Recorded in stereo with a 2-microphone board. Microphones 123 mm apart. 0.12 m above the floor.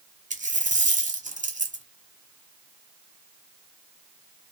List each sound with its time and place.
0.3 s a dropped coin: 75° right (ahead or behind), 0.8 m